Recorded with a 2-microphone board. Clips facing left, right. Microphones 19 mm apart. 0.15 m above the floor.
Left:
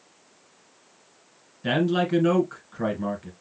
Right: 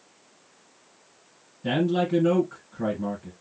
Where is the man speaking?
45° left (ahead or behind), 1.5 m.